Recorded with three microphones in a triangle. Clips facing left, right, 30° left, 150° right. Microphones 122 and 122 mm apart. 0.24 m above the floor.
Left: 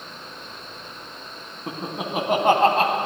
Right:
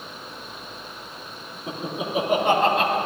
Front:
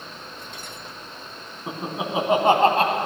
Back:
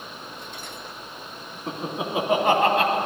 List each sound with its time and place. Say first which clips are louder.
1.7 s laughter: even, even; 100° left, 2 m; by 3.0 s 60° left, 1.5 m